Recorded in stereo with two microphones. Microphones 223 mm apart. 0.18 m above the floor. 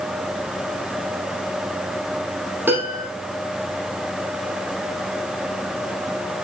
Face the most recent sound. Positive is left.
turn(degrees=-10)  # may be behind; listen again after turning